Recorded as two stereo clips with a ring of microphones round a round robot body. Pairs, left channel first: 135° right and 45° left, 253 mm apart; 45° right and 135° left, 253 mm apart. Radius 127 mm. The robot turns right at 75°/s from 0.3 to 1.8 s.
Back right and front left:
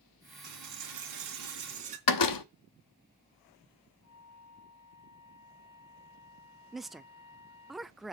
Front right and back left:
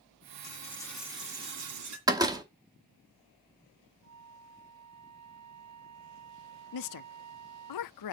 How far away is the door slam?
About 1.0 m.